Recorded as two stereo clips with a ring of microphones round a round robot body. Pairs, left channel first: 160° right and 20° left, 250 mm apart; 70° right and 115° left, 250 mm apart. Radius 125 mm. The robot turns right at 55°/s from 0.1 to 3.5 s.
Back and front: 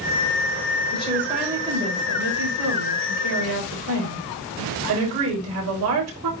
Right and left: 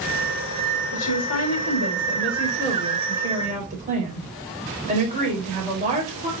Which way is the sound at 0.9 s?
90° right.